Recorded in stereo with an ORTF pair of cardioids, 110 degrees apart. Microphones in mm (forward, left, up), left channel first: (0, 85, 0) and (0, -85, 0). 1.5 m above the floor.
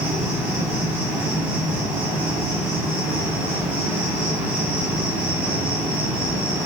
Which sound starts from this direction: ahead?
An insect, at 0.0 s.